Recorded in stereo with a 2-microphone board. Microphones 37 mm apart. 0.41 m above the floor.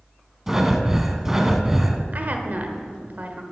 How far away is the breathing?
About 0.7 m.